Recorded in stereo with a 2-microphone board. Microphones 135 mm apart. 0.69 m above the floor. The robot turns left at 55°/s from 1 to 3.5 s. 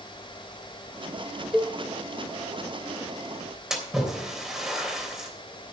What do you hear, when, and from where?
1.5 s a cowbell: 5° right (ahead or behind), 0.7 m; by 1.8 s 20° right (ahead or behind), 0.7 m
3.7 s a splash: 5° right (ahead or behind), 3 m